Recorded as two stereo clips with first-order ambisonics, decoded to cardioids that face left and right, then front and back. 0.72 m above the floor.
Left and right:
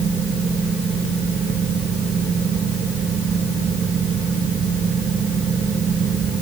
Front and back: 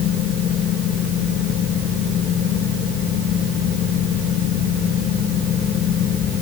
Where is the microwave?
No microwave in this recording.